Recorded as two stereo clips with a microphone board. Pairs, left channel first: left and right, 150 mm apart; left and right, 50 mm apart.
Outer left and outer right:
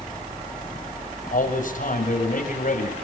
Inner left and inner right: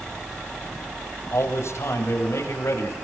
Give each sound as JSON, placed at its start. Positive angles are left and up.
{"t": 1.3, "sound": "a man speaking", "side_deg": 60, "distance_m": 8.0}